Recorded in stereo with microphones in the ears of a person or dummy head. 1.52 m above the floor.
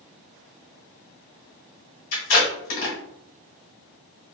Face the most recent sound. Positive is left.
turn(degrees=40)  # may be behind; listen again after turning